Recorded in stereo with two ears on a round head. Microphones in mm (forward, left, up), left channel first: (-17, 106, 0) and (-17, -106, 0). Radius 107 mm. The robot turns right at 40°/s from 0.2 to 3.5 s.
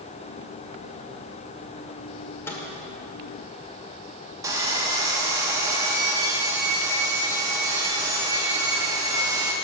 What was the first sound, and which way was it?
A microwave, 10° left (ahead or behind).